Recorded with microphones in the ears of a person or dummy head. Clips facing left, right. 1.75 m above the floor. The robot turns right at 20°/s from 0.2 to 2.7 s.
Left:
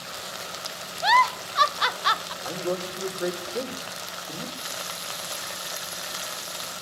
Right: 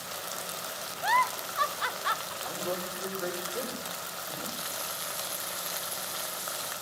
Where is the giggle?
75° left (ahead or behind), 0.7 m; by 2.3 s 55° left (ahead or behind), 0.7 m.